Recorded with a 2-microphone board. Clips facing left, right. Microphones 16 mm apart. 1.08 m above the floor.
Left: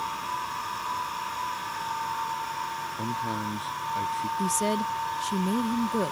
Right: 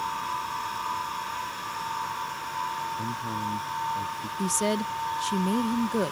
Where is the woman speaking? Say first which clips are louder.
Right 2 dB; 10° right (ahead or behind).